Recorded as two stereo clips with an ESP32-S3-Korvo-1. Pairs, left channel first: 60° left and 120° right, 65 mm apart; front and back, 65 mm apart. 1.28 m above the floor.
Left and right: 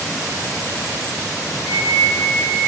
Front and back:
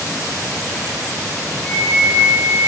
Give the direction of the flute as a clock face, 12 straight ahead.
10 o'clock.